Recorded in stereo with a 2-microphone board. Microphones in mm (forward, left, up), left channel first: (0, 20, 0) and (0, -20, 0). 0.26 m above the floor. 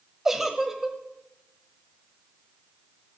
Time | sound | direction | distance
0.2 | a giggle | 10° right (ahead or behind) | 1.3 m